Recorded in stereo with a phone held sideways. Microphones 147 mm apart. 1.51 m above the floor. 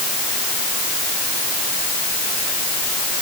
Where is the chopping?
I don't hear chopping.